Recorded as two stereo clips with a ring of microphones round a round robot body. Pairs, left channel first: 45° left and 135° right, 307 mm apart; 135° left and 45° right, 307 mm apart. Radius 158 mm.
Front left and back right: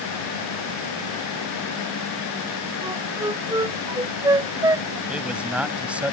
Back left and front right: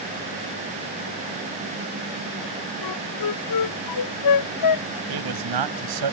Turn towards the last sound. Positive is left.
turn(degrees=-50)